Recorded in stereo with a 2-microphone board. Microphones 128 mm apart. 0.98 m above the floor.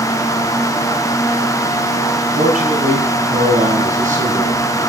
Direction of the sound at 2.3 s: 80° right.